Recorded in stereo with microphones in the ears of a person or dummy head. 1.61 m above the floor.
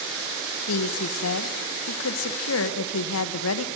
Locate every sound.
0.7 s a woman speaking: 80° left, 1.7 m